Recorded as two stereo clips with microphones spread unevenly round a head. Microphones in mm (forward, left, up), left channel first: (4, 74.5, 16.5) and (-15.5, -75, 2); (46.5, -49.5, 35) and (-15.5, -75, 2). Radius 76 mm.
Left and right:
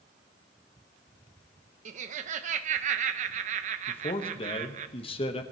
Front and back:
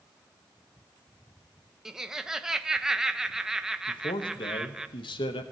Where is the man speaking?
30° left, 1.0 m.